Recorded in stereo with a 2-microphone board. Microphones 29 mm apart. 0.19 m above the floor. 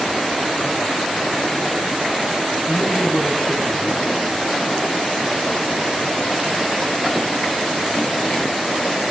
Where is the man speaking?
30° left (ahead or behind), 1.7 m.